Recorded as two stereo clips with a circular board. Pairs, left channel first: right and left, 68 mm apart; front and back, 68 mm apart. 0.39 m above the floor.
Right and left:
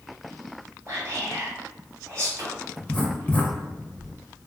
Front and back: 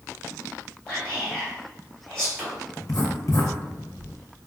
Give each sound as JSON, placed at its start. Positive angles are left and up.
{"t": 0.9, "sound": "whispering", "azimuth_deg": 75, "distance_m": 1.5}
{"t": 2.8, "sound": "writing", "azimuth_deg": -25, "distance_m": 0.6}